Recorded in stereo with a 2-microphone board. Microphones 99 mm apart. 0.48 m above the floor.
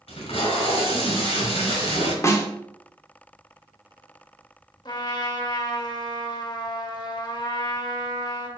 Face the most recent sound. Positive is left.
turn(degrees=45)  # may be behind; listen again after turning